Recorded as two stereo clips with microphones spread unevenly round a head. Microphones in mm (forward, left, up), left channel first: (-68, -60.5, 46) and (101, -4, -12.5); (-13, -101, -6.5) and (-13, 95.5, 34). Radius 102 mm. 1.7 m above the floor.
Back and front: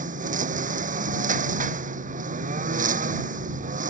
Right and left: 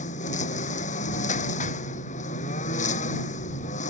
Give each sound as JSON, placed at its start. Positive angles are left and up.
{"t": 0.0, "sound": "a lawn mower", "azimuth_deg": -30}